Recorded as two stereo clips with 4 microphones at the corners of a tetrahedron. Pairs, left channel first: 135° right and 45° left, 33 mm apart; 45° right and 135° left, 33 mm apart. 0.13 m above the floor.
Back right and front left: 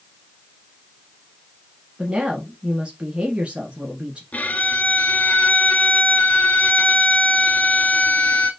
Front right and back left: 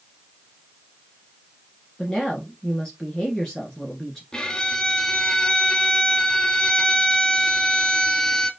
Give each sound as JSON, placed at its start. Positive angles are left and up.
{"t": 2.0, "sound": "a woman speaking", "azimuth_deg": 15, "distance_m": 1.6}
{"t": 4.3, "sound": "a violin", "azimuth_deg": -110, "distance_m": 0.7}